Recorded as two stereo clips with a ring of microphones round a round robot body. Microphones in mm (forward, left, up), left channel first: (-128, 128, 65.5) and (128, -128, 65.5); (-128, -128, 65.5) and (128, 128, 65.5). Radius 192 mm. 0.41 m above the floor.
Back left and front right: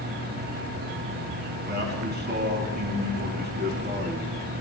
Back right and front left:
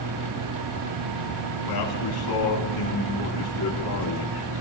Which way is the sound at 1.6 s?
110° right.